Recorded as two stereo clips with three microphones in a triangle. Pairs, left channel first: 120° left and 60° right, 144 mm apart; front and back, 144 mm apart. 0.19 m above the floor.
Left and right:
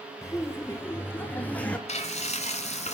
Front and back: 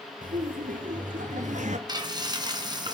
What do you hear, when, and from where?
0.2 s laughter: 170° right, 4.5 m; by 1.8 s 160° right, 2.5 m
1.9 s frying: 130° left, 2.5 m